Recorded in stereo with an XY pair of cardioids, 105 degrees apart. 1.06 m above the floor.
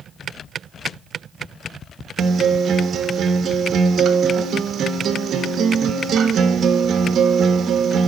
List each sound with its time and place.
2.2 s a guitar: 55° right, 1.6 m